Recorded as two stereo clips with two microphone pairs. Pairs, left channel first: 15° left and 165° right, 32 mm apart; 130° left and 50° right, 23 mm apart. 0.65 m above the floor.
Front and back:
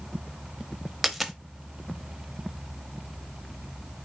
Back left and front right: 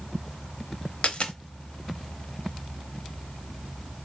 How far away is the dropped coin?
About 0.7 m.